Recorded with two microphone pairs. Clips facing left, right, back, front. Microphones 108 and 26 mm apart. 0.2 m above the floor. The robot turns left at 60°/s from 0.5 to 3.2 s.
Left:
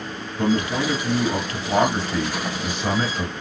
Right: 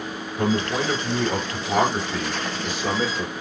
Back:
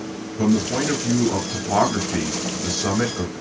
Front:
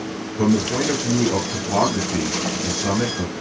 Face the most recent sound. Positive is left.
turn(degrees=115)